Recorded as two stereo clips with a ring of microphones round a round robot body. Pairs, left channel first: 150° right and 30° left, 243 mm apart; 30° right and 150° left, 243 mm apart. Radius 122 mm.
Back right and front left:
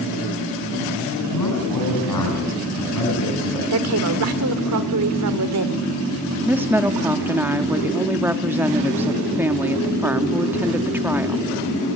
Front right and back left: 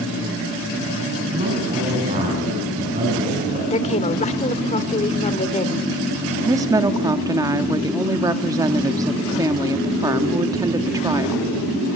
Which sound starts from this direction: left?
A woman speaking, at 6.4 s.